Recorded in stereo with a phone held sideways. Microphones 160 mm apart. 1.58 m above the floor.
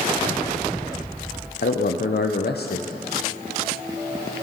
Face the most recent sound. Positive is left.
turn(degrees=80)